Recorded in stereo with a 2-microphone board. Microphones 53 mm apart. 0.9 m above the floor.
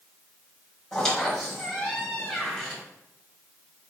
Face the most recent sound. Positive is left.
turn(degrees=5)  # may be behind; listen again after turning